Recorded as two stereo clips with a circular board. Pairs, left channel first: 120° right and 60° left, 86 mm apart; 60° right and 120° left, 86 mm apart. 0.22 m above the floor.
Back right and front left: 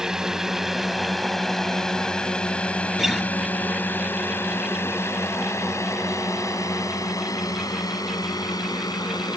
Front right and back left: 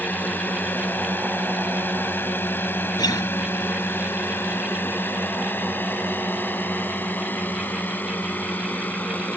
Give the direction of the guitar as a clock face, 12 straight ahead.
1 o'clock.